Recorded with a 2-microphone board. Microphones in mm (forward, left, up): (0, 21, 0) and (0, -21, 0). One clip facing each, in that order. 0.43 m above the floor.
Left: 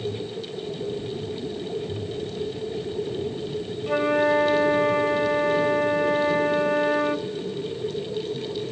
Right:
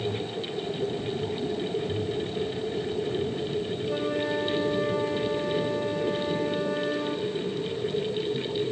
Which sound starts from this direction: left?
A flute, at 3.9 s.